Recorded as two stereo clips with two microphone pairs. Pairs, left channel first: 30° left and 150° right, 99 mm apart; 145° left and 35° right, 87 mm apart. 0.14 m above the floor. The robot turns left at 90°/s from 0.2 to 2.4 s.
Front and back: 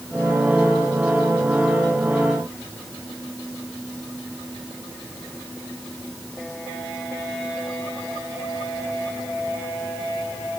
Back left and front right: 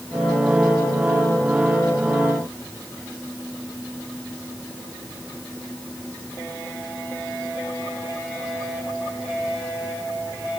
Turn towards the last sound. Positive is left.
No sound to turn to.